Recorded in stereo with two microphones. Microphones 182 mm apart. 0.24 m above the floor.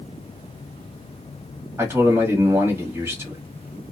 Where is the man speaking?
15° right (ahead or behind), 1.3 m.